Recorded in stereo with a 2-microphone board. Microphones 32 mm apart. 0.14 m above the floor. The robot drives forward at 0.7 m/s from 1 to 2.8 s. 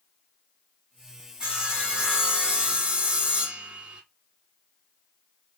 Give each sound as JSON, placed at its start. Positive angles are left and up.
{"t": 1.4, "sound": "sawing", "side_deg": -35, "distance_m": 3.5}